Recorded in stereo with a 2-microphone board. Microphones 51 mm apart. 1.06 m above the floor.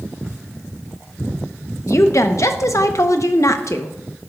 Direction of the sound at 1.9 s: 80° left.